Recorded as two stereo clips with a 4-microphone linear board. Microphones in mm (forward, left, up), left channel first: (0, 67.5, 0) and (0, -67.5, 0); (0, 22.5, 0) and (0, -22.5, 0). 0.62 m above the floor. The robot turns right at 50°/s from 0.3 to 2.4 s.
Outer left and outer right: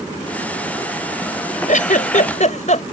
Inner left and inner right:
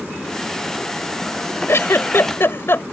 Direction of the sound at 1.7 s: 70° left (ahead or behind).